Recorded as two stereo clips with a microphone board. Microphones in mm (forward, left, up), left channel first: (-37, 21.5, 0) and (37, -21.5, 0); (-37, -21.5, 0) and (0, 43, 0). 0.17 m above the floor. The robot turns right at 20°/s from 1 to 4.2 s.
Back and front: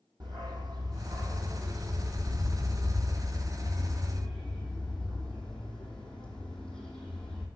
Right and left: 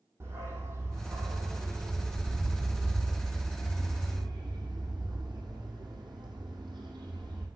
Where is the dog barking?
5° left, 2 m; by 7.5 s 70° left, 2 m.